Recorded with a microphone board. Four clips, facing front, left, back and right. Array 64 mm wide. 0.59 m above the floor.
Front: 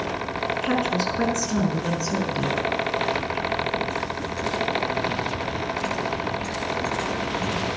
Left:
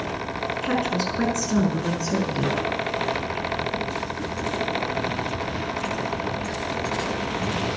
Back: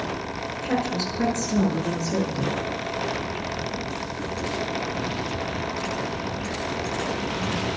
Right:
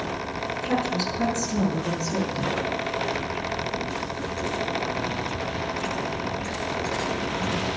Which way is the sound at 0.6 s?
40° left.